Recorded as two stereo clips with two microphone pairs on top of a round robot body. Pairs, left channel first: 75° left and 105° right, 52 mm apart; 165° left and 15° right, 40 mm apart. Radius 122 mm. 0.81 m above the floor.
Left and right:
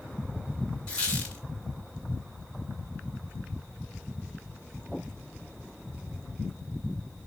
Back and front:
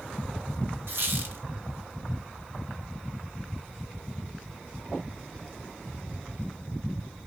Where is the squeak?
5° left, 1.5 m.